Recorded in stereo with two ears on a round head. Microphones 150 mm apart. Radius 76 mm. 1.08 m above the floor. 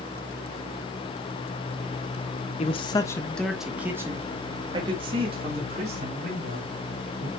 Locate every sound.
2.6 s a man speaking: 40° left (ahead or behind), 1.3 m; by 7.3 s 45° right (ahead or behind), 4.5 m